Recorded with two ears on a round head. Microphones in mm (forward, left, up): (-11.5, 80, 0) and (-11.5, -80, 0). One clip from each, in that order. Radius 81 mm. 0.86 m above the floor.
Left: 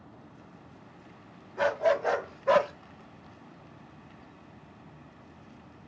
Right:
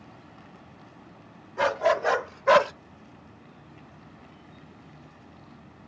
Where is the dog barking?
15° right (ahead or behind), 1.3 m; by 2.7 s 35° right (ahead or behind), 0.7 m.